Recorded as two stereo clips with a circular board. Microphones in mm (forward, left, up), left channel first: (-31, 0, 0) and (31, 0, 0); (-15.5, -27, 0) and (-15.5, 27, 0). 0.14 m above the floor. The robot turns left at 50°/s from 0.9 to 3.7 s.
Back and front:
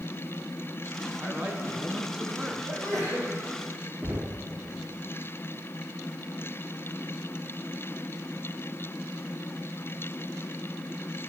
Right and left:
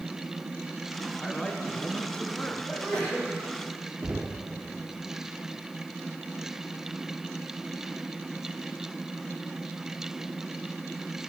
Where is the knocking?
35° left, 1.7 m.